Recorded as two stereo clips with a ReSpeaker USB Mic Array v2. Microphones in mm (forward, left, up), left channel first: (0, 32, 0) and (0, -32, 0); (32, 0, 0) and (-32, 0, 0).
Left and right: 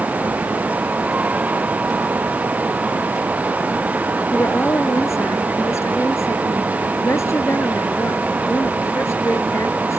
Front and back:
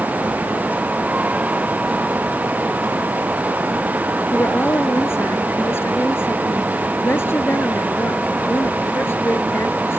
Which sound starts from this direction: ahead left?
A woman speaking, at 4.3 s.